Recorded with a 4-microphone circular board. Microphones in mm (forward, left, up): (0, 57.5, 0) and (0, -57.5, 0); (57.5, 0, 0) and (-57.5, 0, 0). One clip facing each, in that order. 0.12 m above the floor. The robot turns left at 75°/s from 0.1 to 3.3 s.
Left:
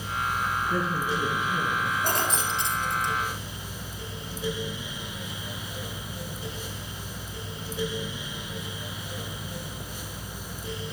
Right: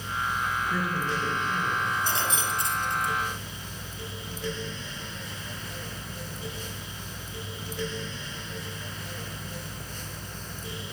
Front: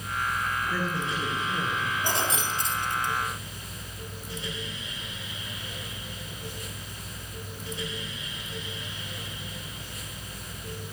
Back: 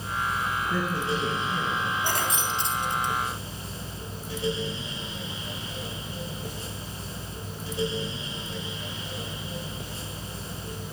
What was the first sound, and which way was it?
A woman speaking, 130° left.